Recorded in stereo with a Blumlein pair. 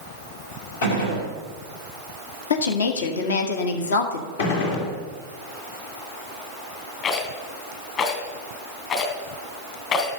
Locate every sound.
0.8 s a gunshot: 65° left, 5.5 m
2.5 s a woman speaking: 65° left, 1.8 m
4.4 s a gunshot: 60° left, 3 m
7.0 s a rattle: 35° left, 3 m